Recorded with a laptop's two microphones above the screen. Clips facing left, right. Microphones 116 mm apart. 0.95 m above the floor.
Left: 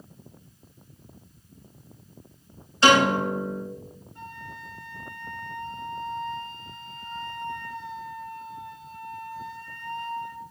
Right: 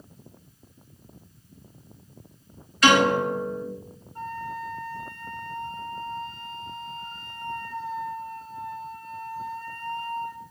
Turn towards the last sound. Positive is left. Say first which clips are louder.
# right 9 dB
turn(degrees=-45)  # may be behind; listen again after turning